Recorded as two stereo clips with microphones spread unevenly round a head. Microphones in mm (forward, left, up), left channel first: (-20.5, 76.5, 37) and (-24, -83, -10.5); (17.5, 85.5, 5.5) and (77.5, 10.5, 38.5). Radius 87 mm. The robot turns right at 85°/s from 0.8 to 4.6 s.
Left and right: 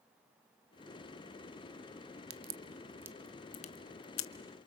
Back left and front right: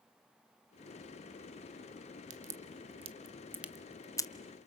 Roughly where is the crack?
Right.